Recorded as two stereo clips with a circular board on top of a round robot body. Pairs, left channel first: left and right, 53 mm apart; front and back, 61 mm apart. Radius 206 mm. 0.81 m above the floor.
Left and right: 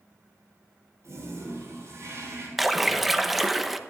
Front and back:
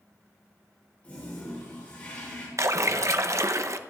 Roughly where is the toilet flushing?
Right.